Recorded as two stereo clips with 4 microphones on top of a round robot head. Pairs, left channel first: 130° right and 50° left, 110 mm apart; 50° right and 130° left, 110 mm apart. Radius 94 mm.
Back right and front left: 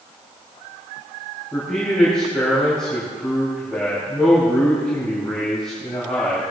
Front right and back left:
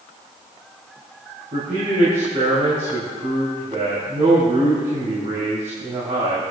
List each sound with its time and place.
1.5 s a man speaking: 145° left, 3.5 m